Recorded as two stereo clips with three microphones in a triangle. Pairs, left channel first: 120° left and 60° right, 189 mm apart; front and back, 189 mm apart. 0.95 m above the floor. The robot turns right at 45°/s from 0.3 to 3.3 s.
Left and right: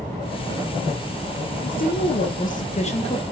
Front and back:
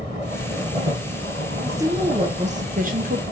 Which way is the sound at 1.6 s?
105° left.